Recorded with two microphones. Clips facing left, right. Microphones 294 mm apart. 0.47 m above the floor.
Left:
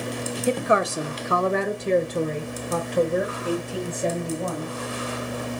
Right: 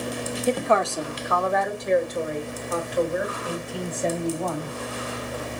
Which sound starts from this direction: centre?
A woman speaking, at 0.5 s.